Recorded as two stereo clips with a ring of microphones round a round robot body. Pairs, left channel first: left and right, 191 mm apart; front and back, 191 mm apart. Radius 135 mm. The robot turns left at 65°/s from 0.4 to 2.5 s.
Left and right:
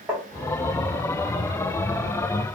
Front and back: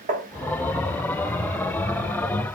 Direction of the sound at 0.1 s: 165° right.